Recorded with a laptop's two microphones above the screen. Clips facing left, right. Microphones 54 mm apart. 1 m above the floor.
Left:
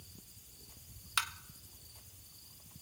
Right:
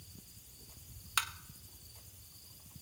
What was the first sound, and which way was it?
Tapping, 5° right (ahead or behind).